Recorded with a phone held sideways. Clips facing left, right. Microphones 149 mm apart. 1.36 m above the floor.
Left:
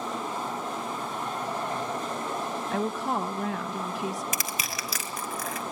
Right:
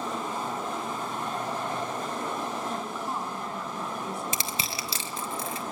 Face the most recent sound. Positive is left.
turn(degrees=-30)  # may be behind; listen again after turning